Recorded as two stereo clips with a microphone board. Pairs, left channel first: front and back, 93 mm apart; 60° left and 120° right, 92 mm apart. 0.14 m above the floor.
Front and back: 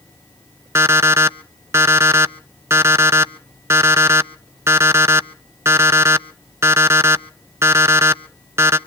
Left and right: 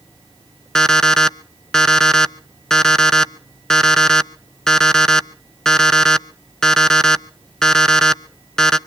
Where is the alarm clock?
140° left, 0.5 m.